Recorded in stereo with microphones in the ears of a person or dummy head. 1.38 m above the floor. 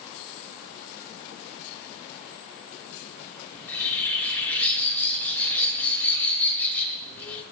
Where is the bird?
15° left (ahead or behind), 3.5 m.